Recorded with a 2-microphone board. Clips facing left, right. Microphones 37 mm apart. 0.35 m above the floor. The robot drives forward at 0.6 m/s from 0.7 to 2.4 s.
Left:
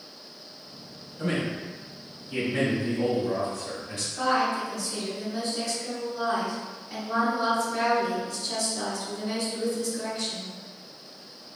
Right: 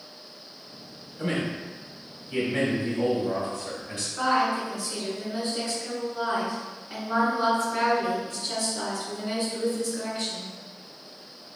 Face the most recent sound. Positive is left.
turn(degrees=-25)  # may be behind; listen again after turning